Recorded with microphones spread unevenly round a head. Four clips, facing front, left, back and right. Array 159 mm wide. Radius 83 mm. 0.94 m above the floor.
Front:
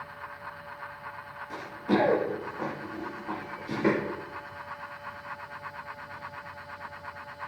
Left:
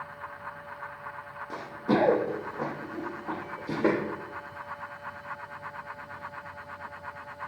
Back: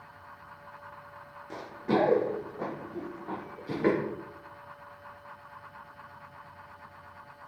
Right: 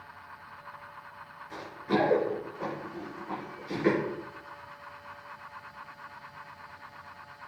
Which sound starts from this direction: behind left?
Running footsteps, at 1.5 s.